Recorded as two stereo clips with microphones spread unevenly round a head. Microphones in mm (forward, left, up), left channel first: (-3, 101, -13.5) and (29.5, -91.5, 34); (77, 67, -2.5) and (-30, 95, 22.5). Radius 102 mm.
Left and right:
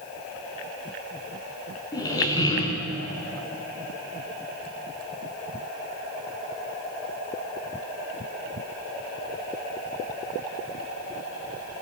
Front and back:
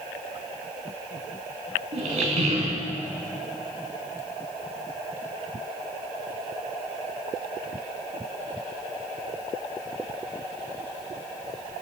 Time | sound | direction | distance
1.9 | a squeak | 175° left | 2 m